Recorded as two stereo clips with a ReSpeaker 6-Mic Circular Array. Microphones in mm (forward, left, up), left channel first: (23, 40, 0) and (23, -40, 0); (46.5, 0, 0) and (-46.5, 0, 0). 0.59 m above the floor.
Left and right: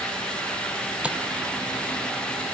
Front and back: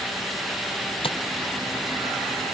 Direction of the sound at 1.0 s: 15° right.